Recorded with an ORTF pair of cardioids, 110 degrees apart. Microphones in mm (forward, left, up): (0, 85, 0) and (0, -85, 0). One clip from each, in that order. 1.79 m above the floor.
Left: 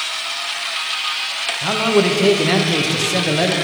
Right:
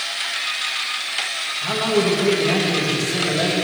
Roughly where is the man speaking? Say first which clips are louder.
Left 4 dB; ahead left.